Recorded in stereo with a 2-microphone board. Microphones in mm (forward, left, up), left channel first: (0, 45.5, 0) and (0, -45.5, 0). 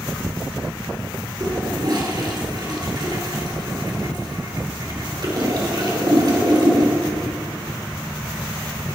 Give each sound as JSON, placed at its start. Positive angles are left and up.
{"t": 1.4, "sound": "a toilet flushing", "side_deg": -50, "distance_m": 2.0}